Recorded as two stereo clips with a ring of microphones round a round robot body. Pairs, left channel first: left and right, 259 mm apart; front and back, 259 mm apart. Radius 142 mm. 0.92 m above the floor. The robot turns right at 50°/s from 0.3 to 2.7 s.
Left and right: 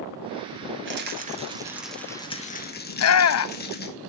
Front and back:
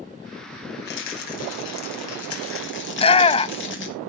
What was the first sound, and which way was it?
A rattle, 50° right.